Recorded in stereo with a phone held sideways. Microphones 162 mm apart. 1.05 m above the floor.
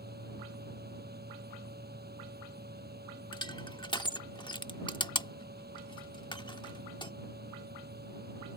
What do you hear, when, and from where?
0.0 s a fan: 80° right
3.3 s crushing: 30° left (ahead or behind)